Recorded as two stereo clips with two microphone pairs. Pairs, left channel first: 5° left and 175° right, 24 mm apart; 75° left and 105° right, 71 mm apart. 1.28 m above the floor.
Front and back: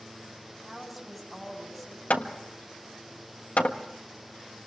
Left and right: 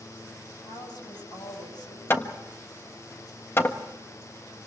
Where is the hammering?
20° left, 1.4 m.